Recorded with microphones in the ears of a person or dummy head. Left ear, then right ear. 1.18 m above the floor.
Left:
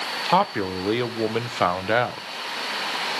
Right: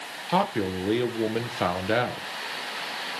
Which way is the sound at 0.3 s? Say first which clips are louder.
Left 3 dB; 35° left (ahead or behind).